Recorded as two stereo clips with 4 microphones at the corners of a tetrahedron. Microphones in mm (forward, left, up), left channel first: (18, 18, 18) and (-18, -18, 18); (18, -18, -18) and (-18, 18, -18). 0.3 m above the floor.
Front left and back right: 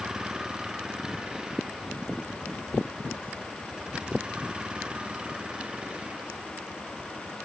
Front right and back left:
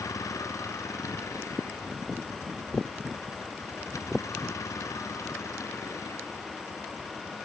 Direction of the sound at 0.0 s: 60° right.